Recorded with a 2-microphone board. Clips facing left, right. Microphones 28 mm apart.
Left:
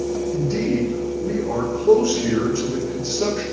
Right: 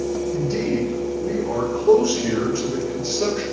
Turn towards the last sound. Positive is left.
turn(degrees=-5)  # may be behind; listen again after turning